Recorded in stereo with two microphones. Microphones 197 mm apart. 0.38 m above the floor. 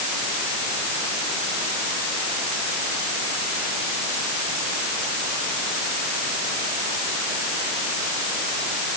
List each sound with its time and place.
Only background noise.